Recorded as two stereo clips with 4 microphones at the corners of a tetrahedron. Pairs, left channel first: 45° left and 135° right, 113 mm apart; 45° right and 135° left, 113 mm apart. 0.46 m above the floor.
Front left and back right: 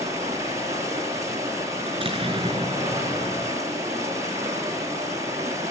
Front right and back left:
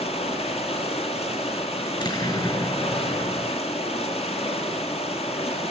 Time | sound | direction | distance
0.0 | running water | 70° right | 4.5 m
1.9 | an explosion | 95° right | 7 m